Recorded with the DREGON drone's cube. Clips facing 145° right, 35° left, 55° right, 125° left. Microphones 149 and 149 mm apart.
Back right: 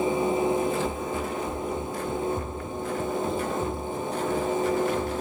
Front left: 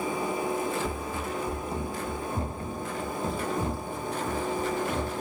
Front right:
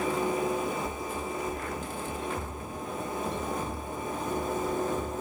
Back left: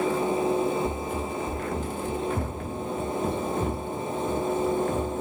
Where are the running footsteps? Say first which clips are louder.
Back right 3 dB, back left 5 dB; 90° left, 1.3 m; by 5.2 s 95° left, 4 m.